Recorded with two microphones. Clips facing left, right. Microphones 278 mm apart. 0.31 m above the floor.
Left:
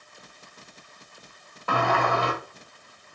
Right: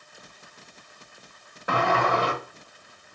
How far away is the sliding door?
About 1.3 m.